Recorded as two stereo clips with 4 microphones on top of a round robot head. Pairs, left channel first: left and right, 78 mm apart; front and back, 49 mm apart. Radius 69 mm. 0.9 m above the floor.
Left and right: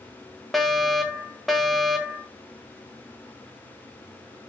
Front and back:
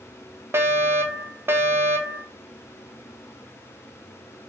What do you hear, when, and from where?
0.5 s a fire alarm: straight behind, 2 m